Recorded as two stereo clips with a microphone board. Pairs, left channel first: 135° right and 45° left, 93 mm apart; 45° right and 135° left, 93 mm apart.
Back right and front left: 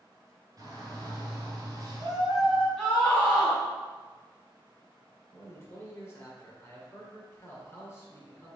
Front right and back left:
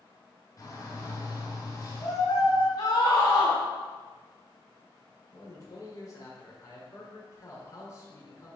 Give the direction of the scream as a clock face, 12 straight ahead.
2 o'clock.